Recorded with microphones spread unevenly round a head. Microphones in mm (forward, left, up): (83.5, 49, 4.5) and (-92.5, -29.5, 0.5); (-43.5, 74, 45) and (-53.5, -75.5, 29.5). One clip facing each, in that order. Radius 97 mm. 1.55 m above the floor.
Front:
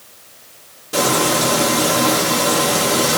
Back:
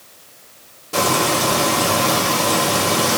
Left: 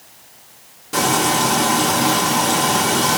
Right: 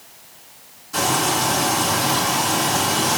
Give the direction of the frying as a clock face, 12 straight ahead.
8 o'clock.